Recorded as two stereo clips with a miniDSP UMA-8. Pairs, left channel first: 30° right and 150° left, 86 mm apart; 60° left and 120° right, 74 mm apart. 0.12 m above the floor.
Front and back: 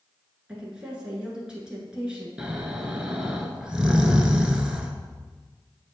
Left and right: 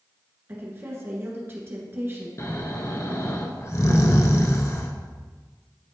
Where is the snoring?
75° left, 0.7 m.